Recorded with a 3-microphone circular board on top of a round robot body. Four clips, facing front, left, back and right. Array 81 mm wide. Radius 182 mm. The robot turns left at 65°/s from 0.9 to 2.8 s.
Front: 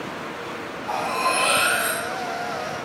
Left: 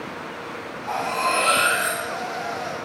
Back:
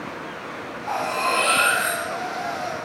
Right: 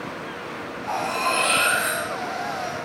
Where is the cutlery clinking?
140° left, 2.0 m; by 2.0 s 70° left, 2.0 m.